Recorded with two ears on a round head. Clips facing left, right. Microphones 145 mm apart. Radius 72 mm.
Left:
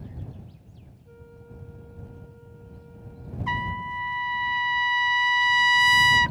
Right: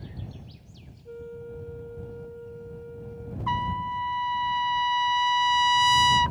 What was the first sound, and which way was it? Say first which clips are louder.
A flute: right 11 dB; 45° right (ahead or behind).